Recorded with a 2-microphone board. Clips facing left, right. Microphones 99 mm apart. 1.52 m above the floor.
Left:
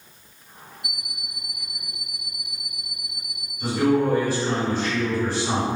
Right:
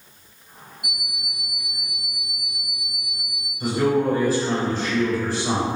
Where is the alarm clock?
15° right (ahead or behind), 0.7 m.